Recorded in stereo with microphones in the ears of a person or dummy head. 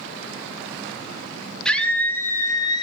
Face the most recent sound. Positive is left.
turn(degrees=30)  # may be behind; listen again after turning